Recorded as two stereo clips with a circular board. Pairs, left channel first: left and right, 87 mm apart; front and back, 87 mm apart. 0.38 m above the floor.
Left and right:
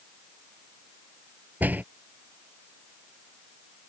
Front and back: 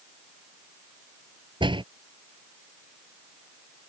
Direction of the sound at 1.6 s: 160° right.